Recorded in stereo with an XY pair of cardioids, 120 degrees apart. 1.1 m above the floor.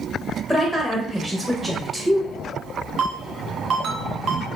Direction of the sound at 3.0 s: 50° right.